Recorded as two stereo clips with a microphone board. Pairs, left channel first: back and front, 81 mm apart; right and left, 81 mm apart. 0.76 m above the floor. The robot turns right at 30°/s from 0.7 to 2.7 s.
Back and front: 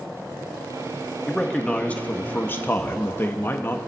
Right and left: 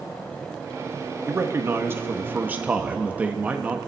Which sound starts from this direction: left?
A man speaking, at 1.3 s.